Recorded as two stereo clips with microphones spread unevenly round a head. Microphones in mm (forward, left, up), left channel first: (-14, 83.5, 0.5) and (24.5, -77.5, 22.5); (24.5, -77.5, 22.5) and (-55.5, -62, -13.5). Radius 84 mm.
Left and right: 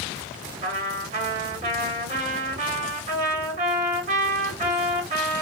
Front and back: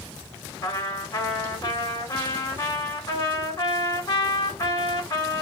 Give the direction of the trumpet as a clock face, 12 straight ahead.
1 o'clock.